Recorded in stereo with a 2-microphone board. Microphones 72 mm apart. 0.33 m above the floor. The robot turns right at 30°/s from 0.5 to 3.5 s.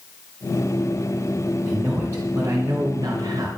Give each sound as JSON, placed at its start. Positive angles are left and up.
{"t": 1.6, "sound": "a man speaking", "azimuth_deg": -170, "distance_m": 3.0}